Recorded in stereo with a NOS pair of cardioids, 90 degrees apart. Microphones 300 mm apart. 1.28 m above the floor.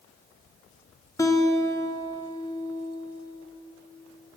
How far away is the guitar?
About 0.6 m.